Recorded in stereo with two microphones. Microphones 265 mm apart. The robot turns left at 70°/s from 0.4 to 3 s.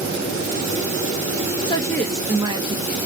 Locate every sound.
1.6 s a woman speaking: 30° left, 0.7 m; by 3.0 s 60° right, 0.7 m